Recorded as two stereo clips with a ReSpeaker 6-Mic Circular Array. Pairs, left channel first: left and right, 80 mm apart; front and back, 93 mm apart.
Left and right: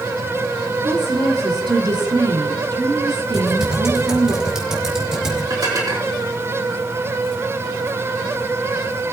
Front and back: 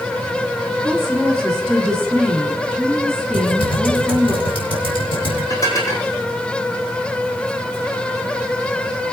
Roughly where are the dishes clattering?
Ahead right.